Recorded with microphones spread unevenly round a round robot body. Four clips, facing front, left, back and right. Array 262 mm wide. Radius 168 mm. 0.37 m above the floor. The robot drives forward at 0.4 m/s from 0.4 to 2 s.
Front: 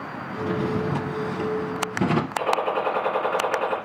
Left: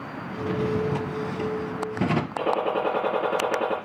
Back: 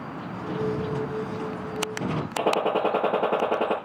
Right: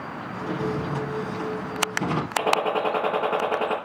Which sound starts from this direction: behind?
A gunshot, at 2.4 s.